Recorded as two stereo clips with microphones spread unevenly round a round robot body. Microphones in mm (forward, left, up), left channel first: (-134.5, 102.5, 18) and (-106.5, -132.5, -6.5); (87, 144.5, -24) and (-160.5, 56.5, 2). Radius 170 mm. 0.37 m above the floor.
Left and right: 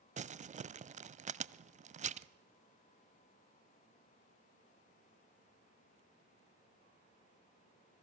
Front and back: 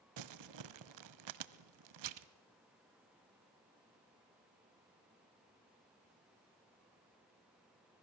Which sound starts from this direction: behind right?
Crumpling, at 0.2 s.